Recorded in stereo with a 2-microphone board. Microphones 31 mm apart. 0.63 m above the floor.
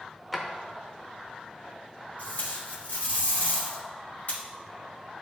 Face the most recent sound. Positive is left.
turn(degrees=55)  # may be behind; listen again after turning